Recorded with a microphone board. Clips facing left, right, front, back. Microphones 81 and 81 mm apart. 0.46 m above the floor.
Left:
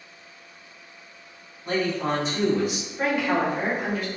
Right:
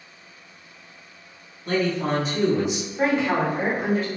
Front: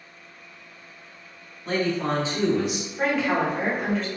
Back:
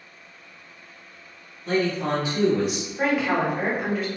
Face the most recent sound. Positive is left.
turn(degrees=-105)